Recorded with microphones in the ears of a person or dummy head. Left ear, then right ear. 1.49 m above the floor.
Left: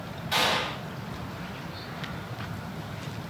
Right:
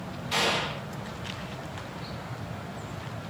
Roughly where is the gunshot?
Centre.